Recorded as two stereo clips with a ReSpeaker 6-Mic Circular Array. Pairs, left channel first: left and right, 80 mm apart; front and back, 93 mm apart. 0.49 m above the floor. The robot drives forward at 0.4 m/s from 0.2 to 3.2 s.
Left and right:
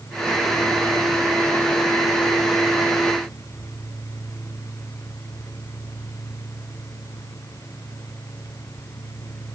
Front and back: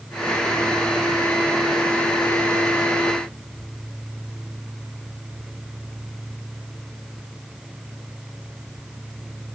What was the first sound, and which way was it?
Only background noise.